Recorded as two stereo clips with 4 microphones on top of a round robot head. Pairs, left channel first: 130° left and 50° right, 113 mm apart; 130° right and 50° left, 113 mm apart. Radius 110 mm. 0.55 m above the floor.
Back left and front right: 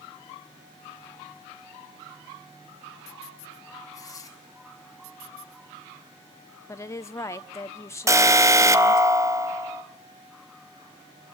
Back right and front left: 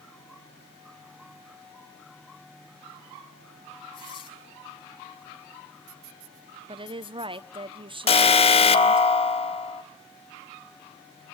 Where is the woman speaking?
70° left, 1.4 m.